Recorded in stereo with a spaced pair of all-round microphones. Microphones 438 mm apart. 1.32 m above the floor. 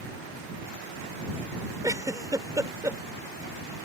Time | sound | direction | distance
1.8 | a giggle | 5° right (ahead or behind) | ?